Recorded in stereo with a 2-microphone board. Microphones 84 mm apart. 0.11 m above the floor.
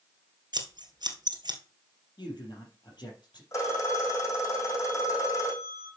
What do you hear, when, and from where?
0.5 s scissors: 60° right (ahead or behind), 2.0 m
2.2 s a man speaking: 60° left (ahead or behind), 3.5 m
3.5 s a phone ringing: 40° left (ahead or behind), 4.5 m